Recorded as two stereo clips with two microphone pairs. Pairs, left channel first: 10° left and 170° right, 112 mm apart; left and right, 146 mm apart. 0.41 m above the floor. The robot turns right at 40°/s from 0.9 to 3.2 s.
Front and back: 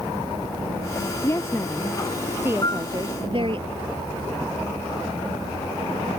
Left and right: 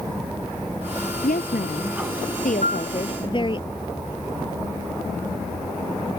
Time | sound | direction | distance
1.2 | a woman speaking | 70° left | ?
2.6 | a piano | 60° left | ?